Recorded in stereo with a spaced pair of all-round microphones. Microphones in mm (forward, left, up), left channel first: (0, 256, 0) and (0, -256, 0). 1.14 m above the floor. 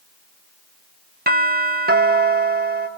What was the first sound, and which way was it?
A doorbell, 20° right (ahead or behind).